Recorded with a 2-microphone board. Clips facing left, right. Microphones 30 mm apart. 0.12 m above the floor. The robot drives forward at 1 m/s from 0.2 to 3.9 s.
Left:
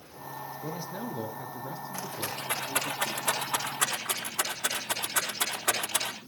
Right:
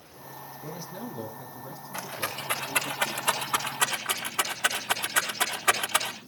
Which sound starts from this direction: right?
A rattle, at 1.9 s.